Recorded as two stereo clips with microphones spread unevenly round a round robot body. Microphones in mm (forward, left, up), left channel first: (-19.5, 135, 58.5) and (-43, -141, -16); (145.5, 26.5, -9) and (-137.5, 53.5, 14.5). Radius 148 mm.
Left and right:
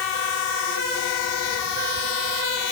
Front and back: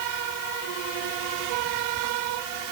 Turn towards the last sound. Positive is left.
No sound to turn to.